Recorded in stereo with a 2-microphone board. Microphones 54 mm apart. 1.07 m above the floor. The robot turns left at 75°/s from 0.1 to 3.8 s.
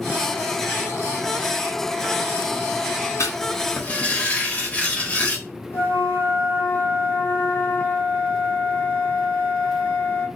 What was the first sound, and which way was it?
Writing, 75° left.